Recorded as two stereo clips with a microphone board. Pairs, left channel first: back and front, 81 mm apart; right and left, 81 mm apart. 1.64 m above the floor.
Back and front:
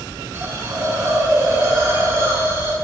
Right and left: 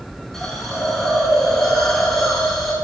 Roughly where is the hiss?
Ahead.